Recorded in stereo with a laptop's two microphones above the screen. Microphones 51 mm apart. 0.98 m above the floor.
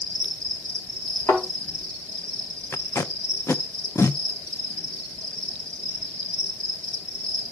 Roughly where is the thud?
Left.